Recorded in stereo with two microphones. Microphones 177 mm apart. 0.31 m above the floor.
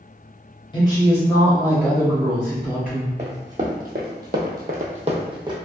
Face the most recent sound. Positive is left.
turn(degrees=-25)  # may be behind; listen again after turning